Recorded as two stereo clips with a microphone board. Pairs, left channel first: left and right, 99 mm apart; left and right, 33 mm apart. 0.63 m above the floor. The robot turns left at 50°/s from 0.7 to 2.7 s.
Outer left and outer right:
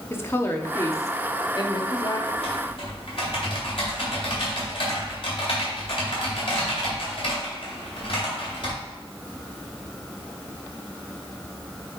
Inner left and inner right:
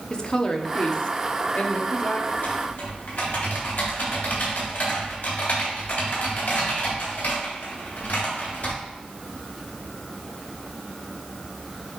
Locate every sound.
0.1 s a woman speaking: 145° left, 0.8 m; by 2.2 s 70° left, 0.8 m
2.3 s typing on a keyboard: 80° left, 3.5 m; by 8.7 s 65° left (ahead or behind), 3.5 m